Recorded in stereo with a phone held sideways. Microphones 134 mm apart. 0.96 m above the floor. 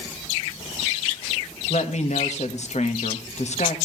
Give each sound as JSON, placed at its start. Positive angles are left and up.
{"t": 1.7, "sound": "a woman speaking", "side_deg": 60, "distance_m": 1.4}